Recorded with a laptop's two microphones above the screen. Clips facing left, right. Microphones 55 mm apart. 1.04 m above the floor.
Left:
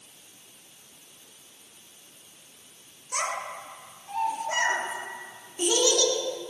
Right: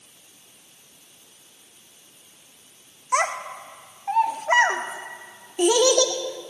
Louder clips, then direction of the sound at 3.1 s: Right 7 dB; 75° right (ahead or behind).